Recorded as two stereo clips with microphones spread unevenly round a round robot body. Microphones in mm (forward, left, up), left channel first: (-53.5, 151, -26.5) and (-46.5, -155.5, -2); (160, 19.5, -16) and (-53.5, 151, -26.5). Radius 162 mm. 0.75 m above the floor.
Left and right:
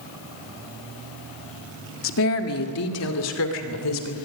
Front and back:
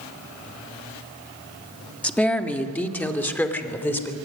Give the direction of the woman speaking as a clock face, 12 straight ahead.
10 o'clock.